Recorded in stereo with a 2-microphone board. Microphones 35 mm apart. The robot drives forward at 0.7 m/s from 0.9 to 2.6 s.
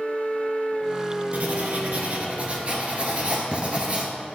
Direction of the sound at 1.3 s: 50° right (ahead or behind).